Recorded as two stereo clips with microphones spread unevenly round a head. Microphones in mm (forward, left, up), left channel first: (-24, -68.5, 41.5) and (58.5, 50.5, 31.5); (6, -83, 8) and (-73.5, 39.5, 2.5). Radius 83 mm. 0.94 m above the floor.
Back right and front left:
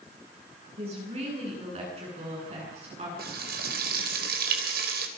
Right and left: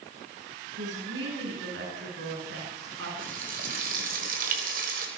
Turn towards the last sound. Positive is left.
turn(degrees=80)